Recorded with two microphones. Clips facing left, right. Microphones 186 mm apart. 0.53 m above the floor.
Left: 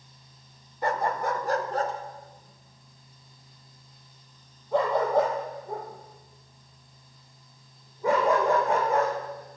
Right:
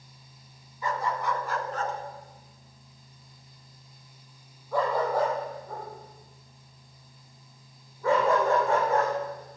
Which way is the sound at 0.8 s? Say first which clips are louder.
Left 3 dB; 70° left (ahead or behind).